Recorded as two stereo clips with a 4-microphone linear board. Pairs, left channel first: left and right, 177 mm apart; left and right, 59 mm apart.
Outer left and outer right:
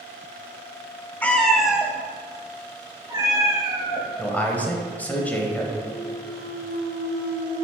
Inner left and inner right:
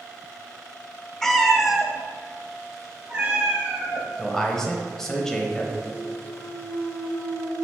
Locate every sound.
1.2 s a cat meowing: 10° left (ahead or behind), 0.6 m; by 4.1 s 20° right (ahead or behind), 2 m
4.2 s a man speaking: 10° left (ahead or behind), 1.0 m
5.9 s a clunk: 35° left (ahead or behind), 1.3 m